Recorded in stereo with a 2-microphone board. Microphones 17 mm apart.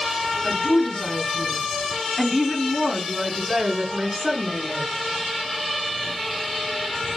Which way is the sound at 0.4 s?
25° left (ahead or behind).